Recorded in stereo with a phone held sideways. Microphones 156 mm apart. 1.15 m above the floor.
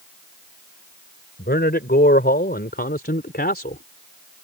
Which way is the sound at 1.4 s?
85° left.